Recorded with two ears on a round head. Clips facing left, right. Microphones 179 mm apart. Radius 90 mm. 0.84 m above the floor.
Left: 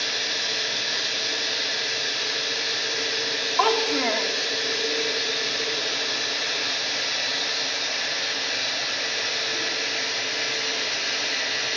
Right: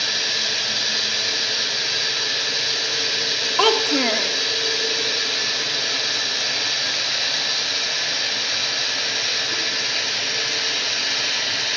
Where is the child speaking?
40° right (ahead or behind), 0.7 m.